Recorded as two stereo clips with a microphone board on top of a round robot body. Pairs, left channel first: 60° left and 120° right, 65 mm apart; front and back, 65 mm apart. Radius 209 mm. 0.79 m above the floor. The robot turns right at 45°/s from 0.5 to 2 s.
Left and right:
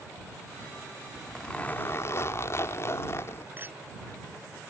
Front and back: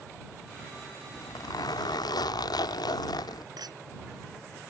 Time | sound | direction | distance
1.1 | a zipper | 30° right | ?
3.6 | a clink | straight behind | ?